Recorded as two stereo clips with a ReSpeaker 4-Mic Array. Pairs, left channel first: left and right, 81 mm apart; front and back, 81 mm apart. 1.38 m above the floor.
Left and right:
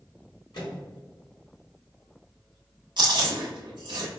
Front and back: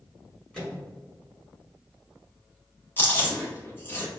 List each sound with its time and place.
0.5 s a microwave: 85° left, 2.0 m
3.0 s chewing: 65° right, 1.0 m